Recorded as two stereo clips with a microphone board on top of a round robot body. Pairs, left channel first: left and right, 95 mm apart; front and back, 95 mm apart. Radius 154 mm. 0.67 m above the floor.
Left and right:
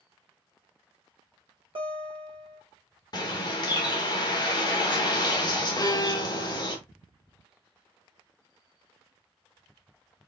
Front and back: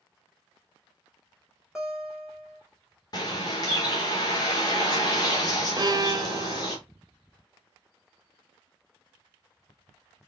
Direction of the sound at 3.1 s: 45° left.